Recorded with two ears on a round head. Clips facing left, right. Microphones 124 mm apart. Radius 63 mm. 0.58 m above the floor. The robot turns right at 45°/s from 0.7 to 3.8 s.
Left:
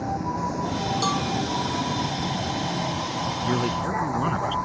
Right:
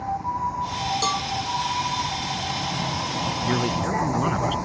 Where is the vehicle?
60° left; by 4.7 s 160° right.